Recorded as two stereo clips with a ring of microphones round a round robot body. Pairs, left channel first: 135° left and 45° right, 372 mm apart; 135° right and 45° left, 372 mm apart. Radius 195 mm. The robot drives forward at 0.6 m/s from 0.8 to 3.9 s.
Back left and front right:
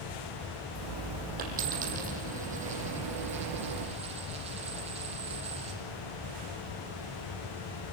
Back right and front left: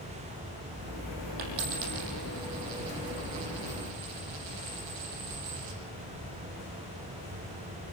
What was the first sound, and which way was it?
A dropped coin, 25° left.